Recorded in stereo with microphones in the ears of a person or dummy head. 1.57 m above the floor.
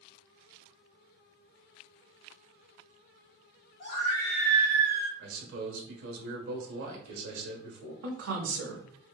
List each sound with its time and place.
3.8 s a scream: 40° left (ahead or behind), 1.3 m; by 5.1 s 35° right (ahead or behind), 1.0 m
5.2 s a man speaking: 80° right, 1.2 m
8.0 s a woman speaking: 85° right, 0.8 m